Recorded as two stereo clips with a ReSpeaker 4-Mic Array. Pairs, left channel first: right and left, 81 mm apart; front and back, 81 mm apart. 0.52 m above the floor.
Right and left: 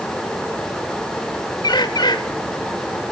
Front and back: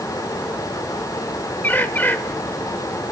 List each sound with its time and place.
1.6 s a bird: 65° right, 0.8 m